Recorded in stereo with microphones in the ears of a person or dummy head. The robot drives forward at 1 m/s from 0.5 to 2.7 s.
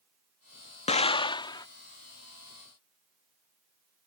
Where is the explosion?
30° left (ahead or behind); by 1.7 s 20° left (ahead or behind).